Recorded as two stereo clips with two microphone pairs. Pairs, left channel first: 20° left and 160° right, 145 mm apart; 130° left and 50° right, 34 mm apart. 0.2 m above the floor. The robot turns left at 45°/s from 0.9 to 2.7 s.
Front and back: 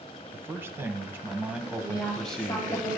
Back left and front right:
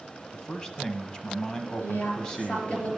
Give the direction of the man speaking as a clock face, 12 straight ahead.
7 o'clock.